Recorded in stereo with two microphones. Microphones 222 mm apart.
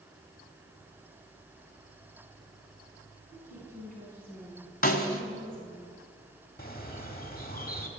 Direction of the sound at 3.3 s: 35° right (ahead or behind).